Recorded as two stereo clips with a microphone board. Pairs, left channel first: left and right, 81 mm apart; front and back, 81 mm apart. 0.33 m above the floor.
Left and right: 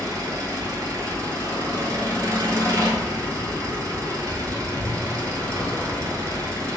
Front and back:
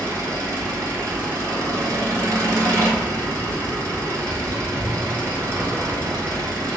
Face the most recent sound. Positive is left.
turn(degrees=-135)